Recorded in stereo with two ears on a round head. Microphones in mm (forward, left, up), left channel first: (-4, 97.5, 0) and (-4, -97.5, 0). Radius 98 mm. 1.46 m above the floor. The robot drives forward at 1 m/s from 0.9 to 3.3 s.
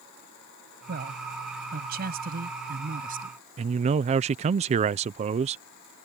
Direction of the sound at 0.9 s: 50° right (ahead or behind).